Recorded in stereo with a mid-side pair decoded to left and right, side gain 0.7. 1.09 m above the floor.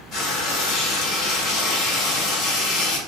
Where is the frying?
50° left, 1.4 m.